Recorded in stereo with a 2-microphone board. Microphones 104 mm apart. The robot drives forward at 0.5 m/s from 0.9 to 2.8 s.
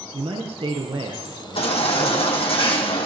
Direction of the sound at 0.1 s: 60° right (ahead or behind).